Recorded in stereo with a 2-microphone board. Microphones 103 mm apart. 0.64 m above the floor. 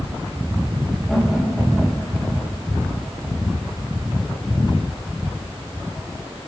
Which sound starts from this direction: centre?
Laughter, at 1.1 s.